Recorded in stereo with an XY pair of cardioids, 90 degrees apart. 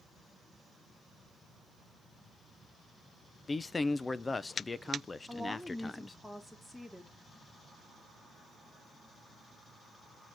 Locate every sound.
3.5 s a man speaking: 30° left, 0.6 m
5.3 s a woman speaking: 5° left, 2.0 m